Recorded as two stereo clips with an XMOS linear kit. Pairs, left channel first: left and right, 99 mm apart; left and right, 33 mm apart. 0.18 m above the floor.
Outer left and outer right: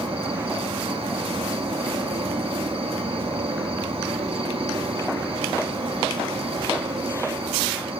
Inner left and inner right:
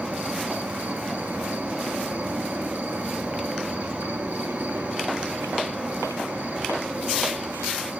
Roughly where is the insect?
Right.